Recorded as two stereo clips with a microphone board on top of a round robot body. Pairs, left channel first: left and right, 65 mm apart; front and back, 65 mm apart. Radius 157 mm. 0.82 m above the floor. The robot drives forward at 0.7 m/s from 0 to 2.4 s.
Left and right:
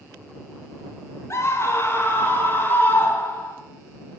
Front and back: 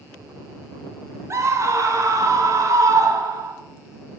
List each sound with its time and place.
1.3 s a scream: 135° left, 2.5 m; by 3.5 s 145° left, 3 m